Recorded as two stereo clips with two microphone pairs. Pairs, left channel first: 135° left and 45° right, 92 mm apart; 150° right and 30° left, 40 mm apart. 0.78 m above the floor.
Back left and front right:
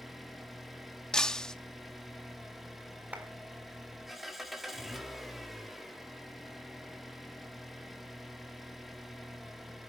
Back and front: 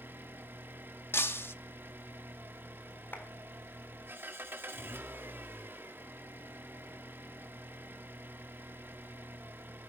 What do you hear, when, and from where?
0.0 s an engine running: 40° left, 1.5 m
1.1 s breaking glass: 145° right, 0.7 m
3.1 s a clap: 125° right, 4 m